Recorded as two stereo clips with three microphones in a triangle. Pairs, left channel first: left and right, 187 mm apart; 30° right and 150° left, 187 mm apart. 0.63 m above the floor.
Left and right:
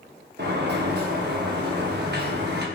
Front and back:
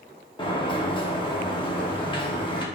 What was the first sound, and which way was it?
A sliding door, 90° right.